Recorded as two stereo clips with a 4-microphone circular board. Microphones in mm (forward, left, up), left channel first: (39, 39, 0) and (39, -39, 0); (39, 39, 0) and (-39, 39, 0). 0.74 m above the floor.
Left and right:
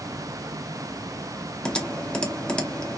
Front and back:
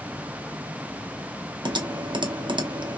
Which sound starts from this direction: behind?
Typing on a keyboard, at 1.6 s.